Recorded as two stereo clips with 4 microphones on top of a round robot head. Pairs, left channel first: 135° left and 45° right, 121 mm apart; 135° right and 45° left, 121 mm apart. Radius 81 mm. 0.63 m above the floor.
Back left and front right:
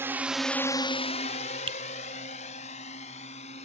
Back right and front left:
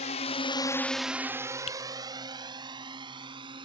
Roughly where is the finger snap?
Right.